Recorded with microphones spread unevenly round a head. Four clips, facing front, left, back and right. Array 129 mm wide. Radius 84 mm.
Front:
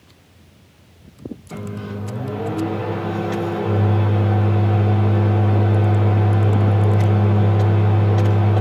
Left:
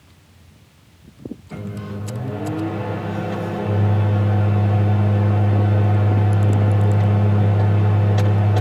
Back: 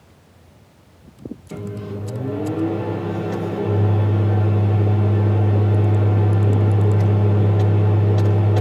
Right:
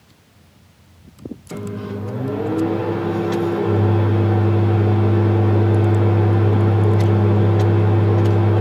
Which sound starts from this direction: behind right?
A microwave, at 1.5 s.